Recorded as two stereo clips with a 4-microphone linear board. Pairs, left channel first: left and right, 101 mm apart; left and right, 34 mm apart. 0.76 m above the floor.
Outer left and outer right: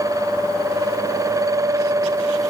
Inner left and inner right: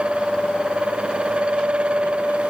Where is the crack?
I don't hear a crack.